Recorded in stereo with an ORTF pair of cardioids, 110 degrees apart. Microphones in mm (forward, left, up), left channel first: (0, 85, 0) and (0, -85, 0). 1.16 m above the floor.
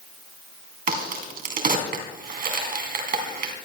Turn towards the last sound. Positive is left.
turn(degrees=-60)